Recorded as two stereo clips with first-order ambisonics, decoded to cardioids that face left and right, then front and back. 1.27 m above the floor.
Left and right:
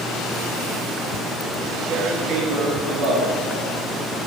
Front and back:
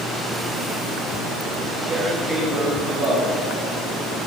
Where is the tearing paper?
95° right, 2.5 m.